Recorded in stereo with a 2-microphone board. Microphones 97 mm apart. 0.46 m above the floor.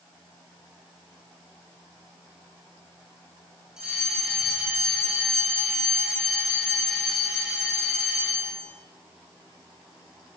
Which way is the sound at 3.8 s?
5° right (ahead or behind).